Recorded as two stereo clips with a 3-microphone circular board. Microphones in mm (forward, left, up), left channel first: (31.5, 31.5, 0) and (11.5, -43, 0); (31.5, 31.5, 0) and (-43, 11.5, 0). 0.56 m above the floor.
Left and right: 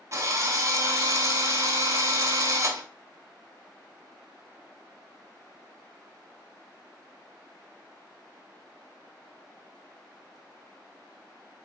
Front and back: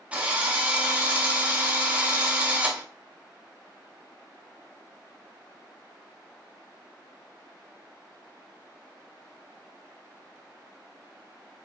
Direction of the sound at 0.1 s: 100° right.